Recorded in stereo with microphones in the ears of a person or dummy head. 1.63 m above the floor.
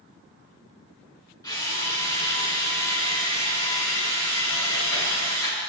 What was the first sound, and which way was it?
A drill, 15° left (ahead or behind).